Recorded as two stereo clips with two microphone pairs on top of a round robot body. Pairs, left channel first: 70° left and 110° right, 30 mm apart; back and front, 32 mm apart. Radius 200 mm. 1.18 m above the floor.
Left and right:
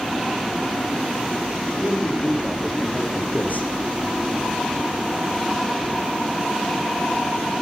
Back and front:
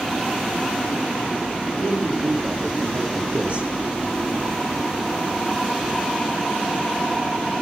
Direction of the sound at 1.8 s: 25° left.